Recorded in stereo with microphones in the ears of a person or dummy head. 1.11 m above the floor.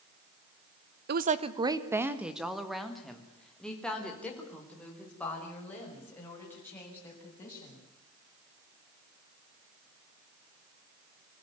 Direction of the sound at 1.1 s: 55° right (ahead or behind).